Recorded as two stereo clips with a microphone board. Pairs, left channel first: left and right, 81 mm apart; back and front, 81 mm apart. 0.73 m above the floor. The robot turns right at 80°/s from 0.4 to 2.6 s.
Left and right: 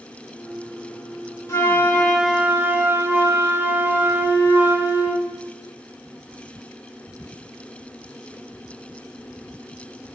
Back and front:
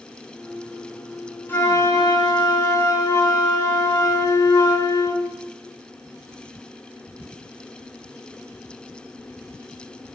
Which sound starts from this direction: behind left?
A flute, at 1.5 s.